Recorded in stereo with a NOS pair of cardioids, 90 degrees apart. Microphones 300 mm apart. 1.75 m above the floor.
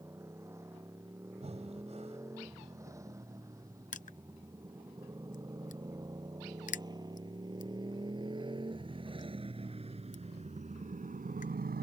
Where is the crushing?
25° left.